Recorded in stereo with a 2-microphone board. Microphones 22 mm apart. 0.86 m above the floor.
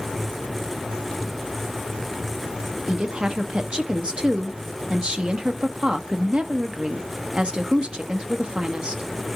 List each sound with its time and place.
2.9 s a woman speaking: 40° right (ahead or behind), 0.9 m